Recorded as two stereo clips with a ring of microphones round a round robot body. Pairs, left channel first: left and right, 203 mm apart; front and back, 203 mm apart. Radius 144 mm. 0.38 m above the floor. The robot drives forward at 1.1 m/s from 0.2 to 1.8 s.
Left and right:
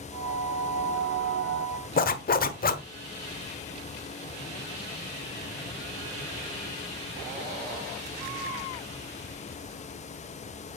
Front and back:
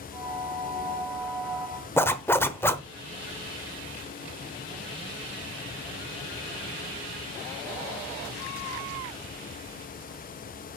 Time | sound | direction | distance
2.0 | a zipper | 75° left | 1.1 m